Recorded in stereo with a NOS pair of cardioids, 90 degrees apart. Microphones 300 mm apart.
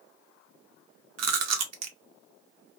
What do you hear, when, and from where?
1.2 s chewing: 60° right, 0.7 m